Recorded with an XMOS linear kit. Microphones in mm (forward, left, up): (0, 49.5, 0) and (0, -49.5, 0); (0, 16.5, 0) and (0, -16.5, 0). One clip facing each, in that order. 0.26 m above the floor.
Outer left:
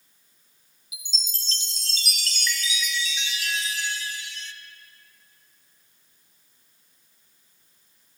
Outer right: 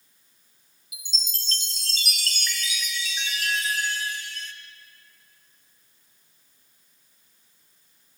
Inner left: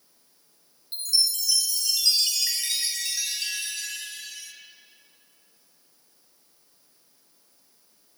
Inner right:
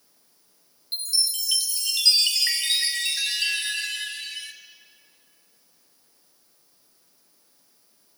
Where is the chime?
50° right (ahead or behind), 1.4 m.